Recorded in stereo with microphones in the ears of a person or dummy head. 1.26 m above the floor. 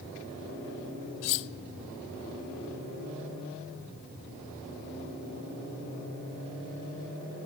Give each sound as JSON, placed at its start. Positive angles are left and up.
{"t": 1.2, "sound": "cutlery clinking", "side_deg": 60, "distance_m": 0.7}